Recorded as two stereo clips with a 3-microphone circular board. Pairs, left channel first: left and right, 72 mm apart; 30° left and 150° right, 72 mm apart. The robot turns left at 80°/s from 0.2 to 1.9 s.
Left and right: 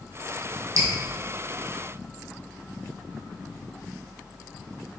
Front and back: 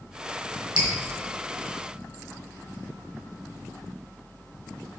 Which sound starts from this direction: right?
Dripping, at 0.8 s.